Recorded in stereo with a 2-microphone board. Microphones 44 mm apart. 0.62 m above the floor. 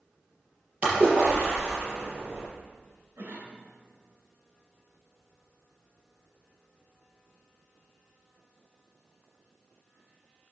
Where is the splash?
30° right (ahead or behind), 4.5 m.